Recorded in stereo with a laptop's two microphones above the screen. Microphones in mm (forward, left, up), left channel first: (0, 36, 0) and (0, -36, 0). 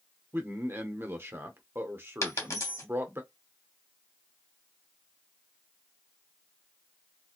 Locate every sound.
0.3 s a man speaking: 35° right (ahead or behind), 0.8 m
2.2 s a dropped coin: 45° left (ahead or behind), 1.1 m